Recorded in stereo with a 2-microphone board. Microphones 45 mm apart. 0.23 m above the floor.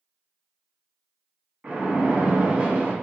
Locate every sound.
1.6 s a splash: 30° right (ahead or behind), 1.0 m